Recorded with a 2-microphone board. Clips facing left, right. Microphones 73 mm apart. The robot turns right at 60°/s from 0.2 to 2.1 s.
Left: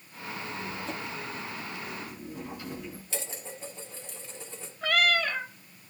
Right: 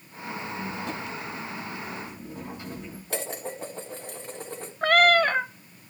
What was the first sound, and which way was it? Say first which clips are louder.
A squeak: right 3 dB; 125° right.